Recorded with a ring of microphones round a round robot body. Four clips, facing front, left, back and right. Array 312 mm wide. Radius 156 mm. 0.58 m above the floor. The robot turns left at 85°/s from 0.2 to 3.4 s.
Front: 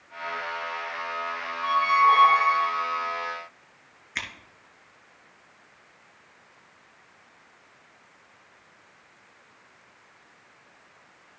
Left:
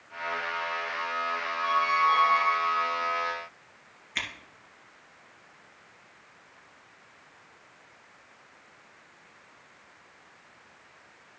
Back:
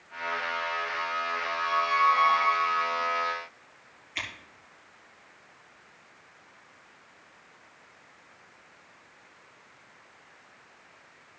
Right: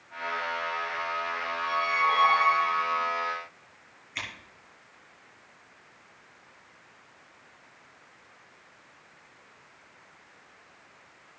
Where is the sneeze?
I don't hear a sneeze.